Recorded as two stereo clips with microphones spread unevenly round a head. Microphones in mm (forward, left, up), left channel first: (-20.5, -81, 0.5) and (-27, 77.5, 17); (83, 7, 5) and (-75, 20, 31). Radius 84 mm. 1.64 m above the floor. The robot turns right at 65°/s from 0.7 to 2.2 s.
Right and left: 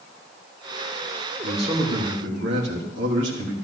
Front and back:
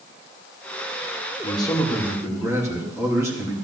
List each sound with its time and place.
1.4 s a man speaking: 50° left, 4 m; by 3.5 s 100° left, 4 m